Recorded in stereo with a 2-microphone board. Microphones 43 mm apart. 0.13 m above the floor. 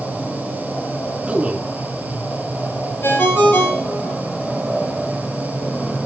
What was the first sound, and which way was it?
A man speaking, 30° right (ahead or behind).